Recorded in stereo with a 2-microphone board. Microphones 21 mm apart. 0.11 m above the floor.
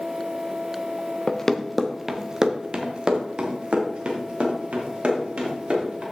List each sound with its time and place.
1.3 s running footsteps: 25° left (ahead or behind), 0.9 m; by 6.0 s 65° right (ahead or behind), 4.5 m